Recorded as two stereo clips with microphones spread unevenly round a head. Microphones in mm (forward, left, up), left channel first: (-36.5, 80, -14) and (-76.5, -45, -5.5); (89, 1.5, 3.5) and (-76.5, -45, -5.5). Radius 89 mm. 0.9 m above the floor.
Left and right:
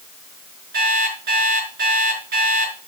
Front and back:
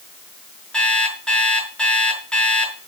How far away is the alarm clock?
About 5.5 m.